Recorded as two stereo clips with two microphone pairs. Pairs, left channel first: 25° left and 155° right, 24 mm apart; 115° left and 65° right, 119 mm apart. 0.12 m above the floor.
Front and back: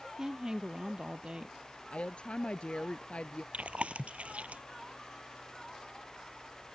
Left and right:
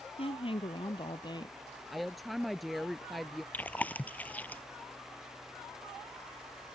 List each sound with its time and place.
0.2 s a woman speaking: 140° left; by 1.6 s 165° left
1.9 s a woman speaking: 25° left
3.5 s chewing: 170° right